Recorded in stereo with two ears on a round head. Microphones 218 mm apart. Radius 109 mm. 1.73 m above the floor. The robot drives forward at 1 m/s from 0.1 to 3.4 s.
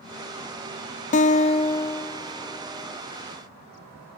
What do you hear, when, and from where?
1.1 s a guitar: 30° left (ahead or behind); by 3.0 s 10° left (ahead or behind)